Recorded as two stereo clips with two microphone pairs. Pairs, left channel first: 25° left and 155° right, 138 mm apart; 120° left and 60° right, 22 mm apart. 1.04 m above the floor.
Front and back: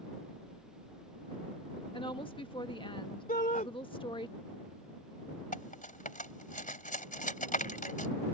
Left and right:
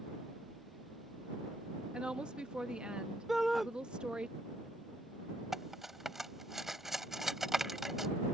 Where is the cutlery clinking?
15° left.